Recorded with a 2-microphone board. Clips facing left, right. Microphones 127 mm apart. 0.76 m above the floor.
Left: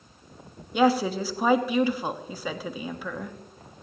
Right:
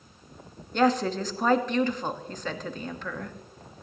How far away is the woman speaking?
About 1.1 m.